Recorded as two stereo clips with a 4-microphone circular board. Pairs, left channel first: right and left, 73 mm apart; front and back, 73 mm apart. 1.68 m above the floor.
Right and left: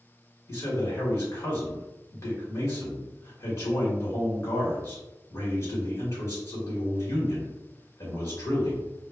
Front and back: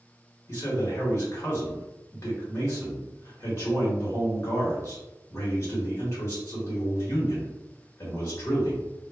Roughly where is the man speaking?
Ahead right.